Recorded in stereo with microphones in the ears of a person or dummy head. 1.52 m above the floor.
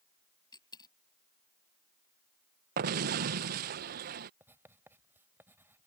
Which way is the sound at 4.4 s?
10° right (ahead or behind).